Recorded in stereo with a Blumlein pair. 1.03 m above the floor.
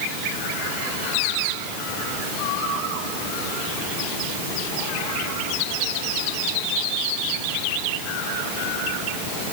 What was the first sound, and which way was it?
Only background noise.